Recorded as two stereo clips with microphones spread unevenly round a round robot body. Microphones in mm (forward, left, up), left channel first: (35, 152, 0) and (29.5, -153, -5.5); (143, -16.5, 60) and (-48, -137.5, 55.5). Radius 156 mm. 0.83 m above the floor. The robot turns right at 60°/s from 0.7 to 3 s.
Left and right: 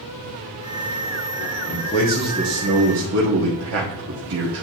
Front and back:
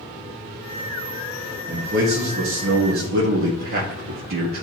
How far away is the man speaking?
About 1.4 m.